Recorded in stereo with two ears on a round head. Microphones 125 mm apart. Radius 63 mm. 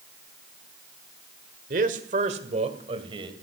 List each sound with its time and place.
1.7 s a man speaking: 60° right (ahead or behind), 1.7 m; by 3.3 s 35° right (ahead or behind), 2.5 m